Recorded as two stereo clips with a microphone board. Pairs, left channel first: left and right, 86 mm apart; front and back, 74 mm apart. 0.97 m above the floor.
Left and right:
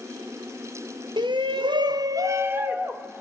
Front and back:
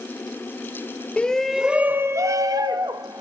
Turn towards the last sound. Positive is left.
turn(degrees=-170)